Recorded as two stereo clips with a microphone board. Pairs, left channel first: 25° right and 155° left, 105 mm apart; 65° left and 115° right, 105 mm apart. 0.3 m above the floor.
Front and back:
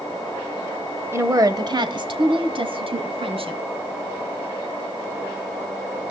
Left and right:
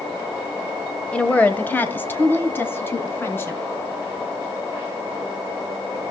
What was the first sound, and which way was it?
A woman speaking, 130° left.